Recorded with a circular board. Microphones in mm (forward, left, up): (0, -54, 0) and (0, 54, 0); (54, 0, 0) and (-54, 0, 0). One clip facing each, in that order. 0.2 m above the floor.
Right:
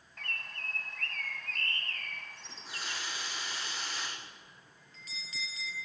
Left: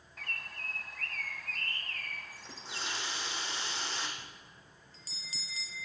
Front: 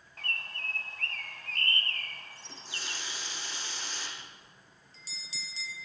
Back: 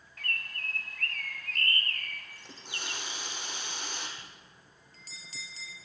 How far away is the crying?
I don't hear crying.